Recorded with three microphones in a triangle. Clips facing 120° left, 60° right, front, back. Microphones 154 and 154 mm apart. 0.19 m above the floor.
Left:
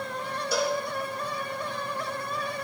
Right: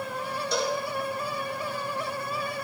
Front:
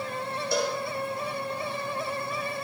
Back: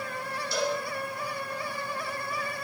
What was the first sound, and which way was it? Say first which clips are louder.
A cowbell: left 1 dB, front 1 dB; 35° left.